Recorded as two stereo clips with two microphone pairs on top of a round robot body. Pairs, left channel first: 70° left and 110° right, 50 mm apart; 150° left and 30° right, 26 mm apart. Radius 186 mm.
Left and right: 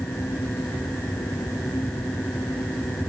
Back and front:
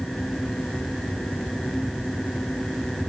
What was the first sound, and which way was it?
Only background noise.